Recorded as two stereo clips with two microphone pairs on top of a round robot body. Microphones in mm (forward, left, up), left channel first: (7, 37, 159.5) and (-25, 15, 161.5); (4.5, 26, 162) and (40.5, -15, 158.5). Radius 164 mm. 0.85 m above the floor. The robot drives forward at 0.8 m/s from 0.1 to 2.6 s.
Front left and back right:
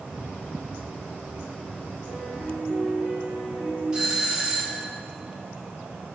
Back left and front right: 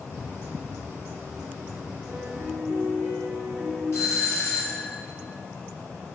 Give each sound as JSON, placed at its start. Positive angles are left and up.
{"t": 2.1, "sound": "a piano", "azimuth_deg": -125, "distance_m": 3.5}
{"t": 3.9, "sound": "a doorbell", "azimuth_deg": 150, "distance_m": 2.0}